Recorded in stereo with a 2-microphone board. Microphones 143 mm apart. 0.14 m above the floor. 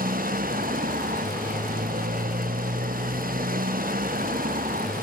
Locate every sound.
0.0 s a motorcycle: 85° right